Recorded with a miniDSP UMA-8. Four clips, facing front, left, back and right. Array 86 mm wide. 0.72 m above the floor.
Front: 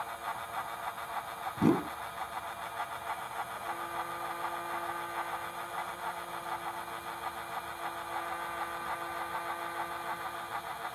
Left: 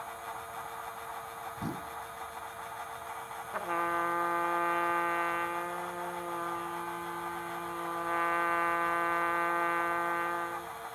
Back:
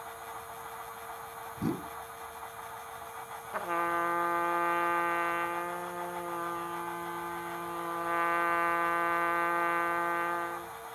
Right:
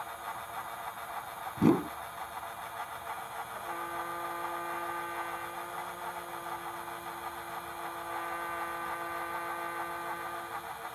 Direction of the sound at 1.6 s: 60° right.